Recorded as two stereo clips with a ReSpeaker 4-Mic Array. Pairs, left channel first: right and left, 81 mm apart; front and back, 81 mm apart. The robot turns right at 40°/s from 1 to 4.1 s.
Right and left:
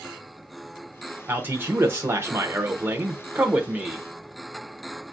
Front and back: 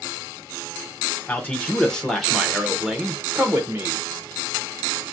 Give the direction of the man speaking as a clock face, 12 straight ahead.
10 o'clock.